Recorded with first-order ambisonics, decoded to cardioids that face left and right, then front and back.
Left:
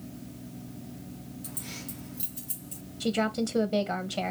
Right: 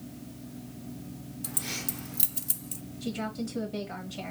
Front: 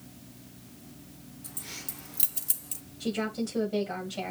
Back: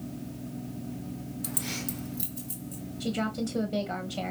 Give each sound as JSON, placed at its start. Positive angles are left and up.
{"t": 1.4, "sound": "keys jangling", "azimuth_deg": -150, "distance_m": 0.9}
{"t": 3.0, "sound": "a woman speaking", "azimuth_deg": 100, "distance_m": 1.2}